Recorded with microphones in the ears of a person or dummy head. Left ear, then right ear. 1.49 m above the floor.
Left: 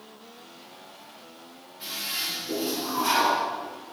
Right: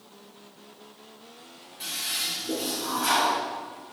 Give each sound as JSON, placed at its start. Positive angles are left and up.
{"t": 1.8, "sound": "a toilet flushing", "side_deg": -20, "distance_m": 3.5}